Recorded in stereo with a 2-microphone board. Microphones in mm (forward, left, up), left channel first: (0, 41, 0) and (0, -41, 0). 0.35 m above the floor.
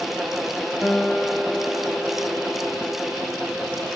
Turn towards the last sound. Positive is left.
turn(degrees=5)  # may be behind; listen again after turning